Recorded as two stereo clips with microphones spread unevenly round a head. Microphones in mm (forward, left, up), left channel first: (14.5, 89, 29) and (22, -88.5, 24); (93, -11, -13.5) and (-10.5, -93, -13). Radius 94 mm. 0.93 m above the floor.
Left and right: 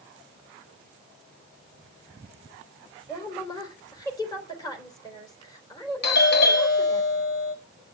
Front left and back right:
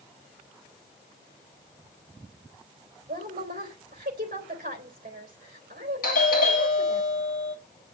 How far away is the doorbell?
About 2.5 m.